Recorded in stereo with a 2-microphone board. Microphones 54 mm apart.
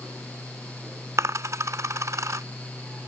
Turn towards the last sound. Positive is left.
turn(degrees=-65)  # may be behind; listen again after turning